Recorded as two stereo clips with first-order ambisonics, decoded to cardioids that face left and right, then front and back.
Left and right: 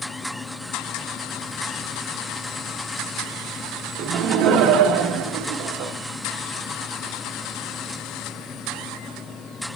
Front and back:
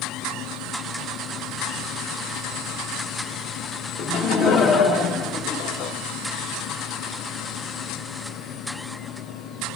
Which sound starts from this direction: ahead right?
Laughter, at 4.0 s.